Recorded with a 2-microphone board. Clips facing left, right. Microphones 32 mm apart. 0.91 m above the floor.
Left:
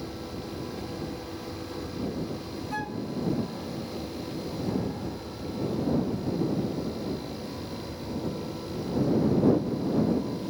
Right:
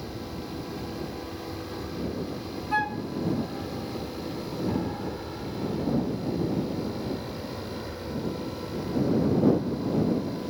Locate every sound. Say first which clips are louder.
0.0 s an aircraft: even; 10° right (ahead or behind); by 10.5 s 45° right (ahead or behind)
2.7 s a flute: right 7 dB; 40° right (ahead or behind)